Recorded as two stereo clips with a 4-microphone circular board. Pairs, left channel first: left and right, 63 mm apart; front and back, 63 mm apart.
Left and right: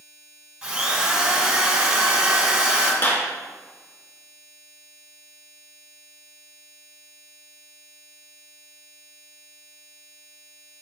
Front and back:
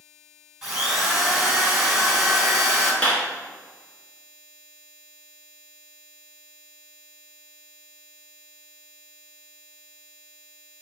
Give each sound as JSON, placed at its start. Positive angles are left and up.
{"t": 0.6, "sound": "a drill", "azimuth_deg": -115, "distance_m": 1.7}
{"t": 3.0, "sound": "a clap", "azimuth_deg": 65, "distance_m": 1.8}